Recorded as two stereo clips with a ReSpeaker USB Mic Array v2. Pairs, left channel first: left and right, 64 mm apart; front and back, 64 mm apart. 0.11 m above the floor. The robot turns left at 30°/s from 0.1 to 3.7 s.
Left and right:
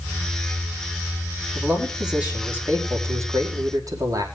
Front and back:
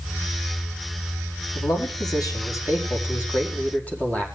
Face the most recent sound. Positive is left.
turn(degrees=-65)